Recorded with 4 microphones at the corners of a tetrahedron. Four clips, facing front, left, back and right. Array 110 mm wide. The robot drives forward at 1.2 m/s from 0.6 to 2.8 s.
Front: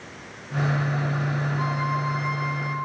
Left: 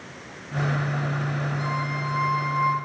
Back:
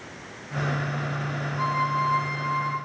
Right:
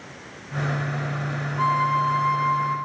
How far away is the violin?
About 8 m.